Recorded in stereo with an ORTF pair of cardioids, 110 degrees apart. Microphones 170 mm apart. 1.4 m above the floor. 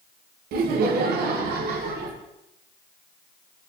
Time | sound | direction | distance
0.5 | laughter | 65° right | 0.6 m